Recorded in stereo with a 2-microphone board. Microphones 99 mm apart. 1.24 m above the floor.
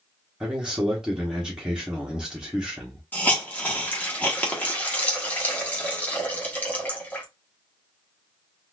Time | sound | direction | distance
0.4 | a man speaking | 5° right (ahead or behind) | 1.1 m
3.1 | a hiss | 15° left (ahead or behind) | 1.1 m